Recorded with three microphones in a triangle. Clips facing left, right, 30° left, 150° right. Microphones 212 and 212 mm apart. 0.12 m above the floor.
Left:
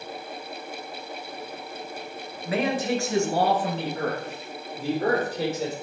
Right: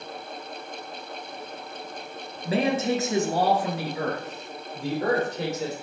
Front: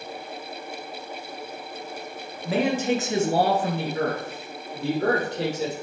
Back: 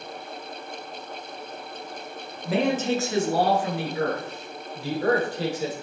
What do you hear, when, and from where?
2.5 s a man speaking: 65° right, 1.5 m; by 5.7 s 5° left, 3.5 m